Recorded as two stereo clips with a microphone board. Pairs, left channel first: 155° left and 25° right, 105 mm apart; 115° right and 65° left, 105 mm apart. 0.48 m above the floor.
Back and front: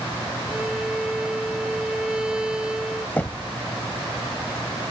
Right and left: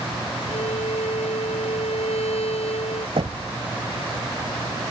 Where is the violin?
105° right.